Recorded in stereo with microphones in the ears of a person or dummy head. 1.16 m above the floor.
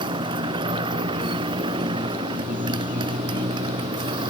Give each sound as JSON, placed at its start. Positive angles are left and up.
{"t": 0.0, "sound": "a motorcycle", "side_deg": -25}